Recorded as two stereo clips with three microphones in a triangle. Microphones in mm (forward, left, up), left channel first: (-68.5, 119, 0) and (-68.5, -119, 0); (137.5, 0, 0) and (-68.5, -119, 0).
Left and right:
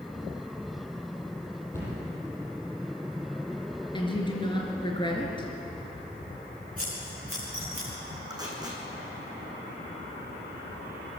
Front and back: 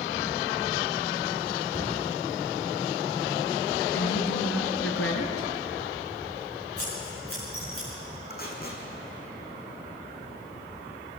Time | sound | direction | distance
1.7 | a cupboard door | 170° left | 9 m
3.9 | a woman speaking | 20° left | 3.5 m
6.8 | scissors | 35° left | 9 m
8.3 | tape being pulled | 15° right | 3.5 m